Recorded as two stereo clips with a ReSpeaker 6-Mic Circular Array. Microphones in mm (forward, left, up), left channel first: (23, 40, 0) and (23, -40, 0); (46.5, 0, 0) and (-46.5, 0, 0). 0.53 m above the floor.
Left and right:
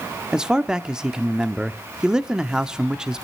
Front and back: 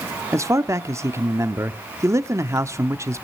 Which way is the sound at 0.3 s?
160° right.